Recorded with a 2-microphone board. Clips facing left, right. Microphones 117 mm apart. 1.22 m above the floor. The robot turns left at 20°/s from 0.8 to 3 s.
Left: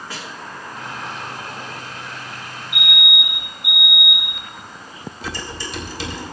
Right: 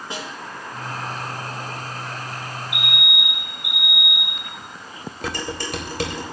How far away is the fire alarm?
About 6 m.